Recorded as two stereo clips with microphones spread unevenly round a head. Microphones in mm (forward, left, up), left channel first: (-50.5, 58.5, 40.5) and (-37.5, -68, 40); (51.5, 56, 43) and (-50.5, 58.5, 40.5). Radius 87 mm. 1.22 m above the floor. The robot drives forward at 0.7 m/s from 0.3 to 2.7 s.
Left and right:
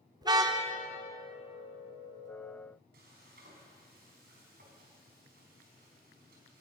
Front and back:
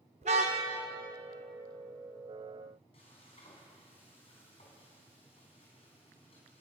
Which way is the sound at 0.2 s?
140° right.